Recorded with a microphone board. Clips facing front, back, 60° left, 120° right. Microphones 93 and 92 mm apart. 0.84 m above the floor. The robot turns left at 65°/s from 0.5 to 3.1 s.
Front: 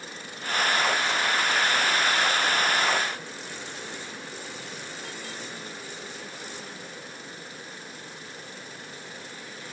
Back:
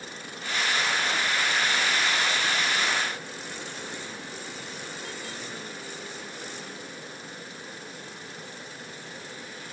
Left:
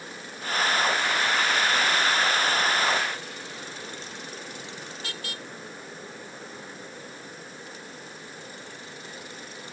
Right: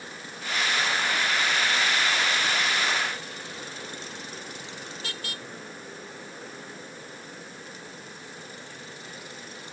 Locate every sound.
Only background noise.